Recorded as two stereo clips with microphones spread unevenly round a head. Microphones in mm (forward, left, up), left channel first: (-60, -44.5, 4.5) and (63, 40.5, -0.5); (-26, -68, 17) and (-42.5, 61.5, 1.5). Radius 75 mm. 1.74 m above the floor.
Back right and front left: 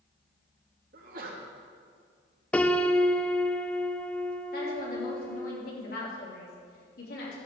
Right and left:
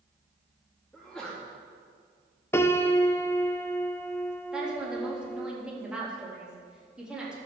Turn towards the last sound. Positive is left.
turn(degrees=180)